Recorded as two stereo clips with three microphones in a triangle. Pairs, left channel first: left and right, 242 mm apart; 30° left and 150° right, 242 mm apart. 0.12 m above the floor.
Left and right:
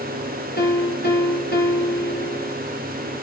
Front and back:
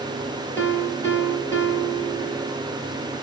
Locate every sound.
0.6 s a piano: 105° left, 1.6 m